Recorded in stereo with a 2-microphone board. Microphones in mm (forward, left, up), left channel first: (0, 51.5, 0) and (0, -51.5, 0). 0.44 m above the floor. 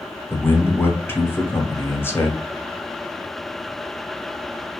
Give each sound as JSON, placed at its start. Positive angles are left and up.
{"t": 0.3, "sound": "a man speaking", "side_deg": 20, "distance_m": 0.8}